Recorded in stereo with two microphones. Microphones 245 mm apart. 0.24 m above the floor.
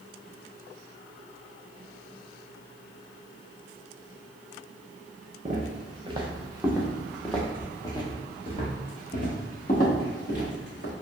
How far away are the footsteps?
About 1.7 m.